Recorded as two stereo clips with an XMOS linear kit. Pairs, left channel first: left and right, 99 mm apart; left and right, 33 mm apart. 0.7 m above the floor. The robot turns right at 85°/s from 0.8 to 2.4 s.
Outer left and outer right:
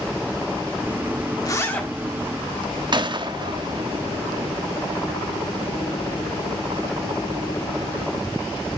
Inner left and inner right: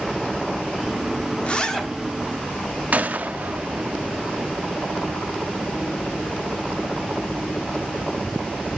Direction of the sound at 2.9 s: 50° right (ahead or behind).